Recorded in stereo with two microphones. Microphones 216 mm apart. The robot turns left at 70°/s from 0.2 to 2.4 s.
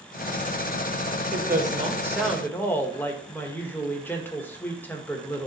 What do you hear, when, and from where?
1.3 s a woman speaking: 115° right, 1.5 m; by 5.5 s 170° left, 1.5 m